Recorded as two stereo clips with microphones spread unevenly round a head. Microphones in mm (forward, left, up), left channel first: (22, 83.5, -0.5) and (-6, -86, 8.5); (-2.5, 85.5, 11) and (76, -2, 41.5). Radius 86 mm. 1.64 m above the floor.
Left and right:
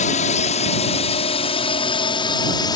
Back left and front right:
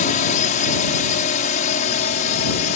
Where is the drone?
130° left; by 2.8 s 150° left.